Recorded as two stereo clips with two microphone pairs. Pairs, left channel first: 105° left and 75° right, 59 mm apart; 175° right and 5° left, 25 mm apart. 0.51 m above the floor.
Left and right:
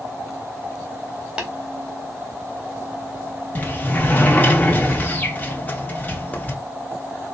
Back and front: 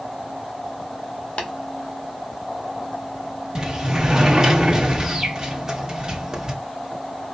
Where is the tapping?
140° right, 1.5 m.